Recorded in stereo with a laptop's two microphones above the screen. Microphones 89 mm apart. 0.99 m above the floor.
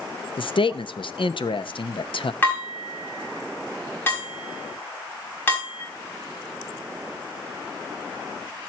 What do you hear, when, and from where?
0.4 s a man speaking: 70° left (ahead or behind), 0.7 m
2.4 s dishes clattering: 25° left (ahead or behind), 5.5 m